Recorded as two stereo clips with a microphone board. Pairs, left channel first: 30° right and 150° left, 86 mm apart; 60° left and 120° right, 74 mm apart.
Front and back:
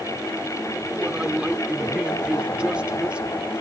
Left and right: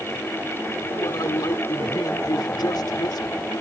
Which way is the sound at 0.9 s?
75° left.